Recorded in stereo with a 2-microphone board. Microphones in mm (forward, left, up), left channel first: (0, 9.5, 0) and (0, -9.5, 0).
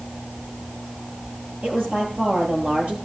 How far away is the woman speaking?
About 8 m.